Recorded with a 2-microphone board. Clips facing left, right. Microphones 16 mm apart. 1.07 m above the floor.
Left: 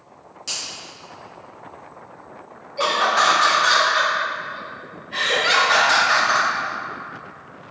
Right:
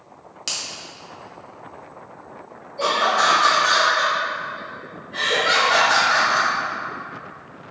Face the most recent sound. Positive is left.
turn(degrees=90)